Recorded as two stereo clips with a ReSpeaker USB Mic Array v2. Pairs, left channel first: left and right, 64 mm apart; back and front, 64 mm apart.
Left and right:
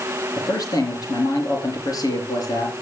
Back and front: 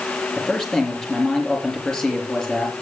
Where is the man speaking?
100° left, 5.5 m.